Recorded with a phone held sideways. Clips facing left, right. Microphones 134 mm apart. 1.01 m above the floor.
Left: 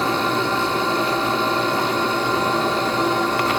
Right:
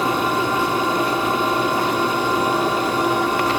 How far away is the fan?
About 1.9 m.